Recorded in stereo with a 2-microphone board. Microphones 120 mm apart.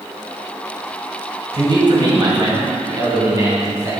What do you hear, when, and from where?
1.5 s a man speaking: 45° right (ahead or behind), 2 m; by 3.9 s 30° right (ahead or behind), 3 m